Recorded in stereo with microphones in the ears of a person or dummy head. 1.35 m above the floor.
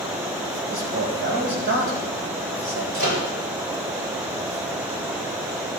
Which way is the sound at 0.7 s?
65° right (ahead or behind).